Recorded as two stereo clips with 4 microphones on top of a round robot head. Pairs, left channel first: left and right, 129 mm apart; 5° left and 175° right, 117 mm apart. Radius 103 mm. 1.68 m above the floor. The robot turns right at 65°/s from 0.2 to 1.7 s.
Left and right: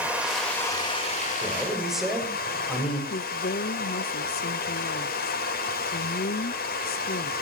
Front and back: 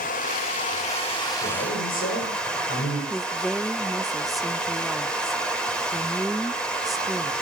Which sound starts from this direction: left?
A woman speaking, at 3.1 s.